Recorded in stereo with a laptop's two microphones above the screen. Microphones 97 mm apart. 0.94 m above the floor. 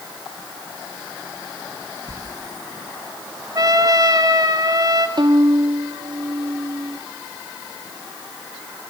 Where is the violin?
50° right (ahead or behind), 0.8 m.